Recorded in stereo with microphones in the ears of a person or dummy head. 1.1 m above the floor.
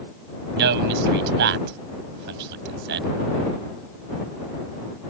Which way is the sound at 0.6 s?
60° right (ahead or behind).